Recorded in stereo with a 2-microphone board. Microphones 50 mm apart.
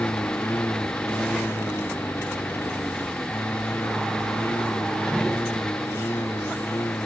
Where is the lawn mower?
50° left (ahead or behind); by 7.1 s 65° left (ahead or behind).